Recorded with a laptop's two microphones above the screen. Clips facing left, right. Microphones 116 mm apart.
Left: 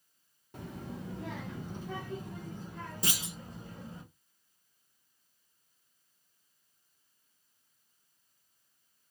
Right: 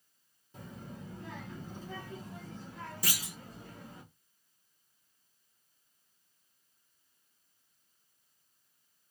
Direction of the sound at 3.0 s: 25° left (ahead or behind).